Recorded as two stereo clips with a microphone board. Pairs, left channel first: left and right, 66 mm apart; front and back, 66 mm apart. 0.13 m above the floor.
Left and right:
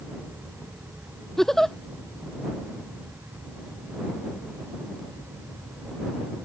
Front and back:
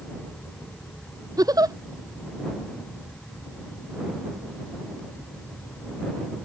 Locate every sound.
1.4 s a giggle: 175° left